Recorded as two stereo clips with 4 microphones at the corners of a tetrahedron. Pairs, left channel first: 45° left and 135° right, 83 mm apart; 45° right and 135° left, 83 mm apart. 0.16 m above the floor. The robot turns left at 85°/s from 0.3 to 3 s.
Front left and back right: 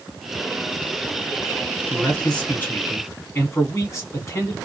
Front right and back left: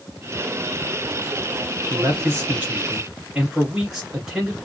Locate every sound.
1.9 s a man speaking: 150° left, 1.7 m; by 4.5 s 55° left, 1.7 m